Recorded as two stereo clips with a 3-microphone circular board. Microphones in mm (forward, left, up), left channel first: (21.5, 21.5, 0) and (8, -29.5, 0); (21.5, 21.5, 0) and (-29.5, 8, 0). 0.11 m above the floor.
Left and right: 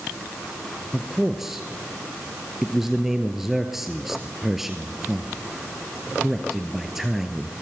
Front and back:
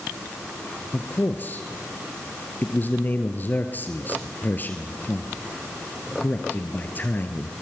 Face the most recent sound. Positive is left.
turn(degrees=-25)